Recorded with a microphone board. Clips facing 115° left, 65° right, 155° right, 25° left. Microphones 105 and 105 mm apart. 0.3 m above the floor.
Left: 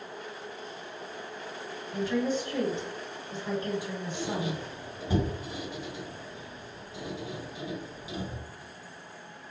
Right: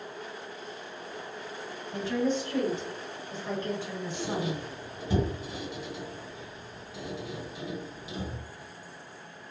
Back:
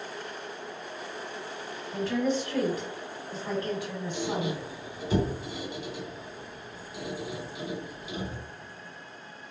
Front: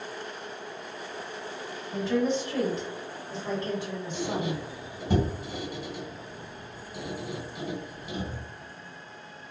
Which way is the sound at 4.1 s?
50° left.